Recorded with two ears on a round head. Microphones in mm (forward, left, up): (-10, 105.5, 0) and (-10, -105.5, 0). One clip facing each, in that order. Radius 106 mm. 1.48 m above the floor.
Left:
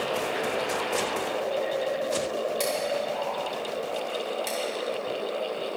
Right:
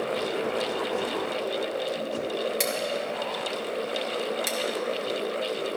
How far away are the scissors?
About 1.9 m.